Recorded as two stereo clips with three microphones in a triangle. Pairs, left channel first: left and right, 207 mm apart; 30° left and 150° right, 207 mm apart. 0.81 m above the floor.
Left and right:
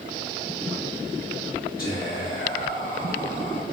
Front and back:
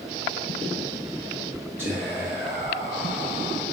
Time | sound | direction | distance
1.8 | whispering | 130° left | 1.2 m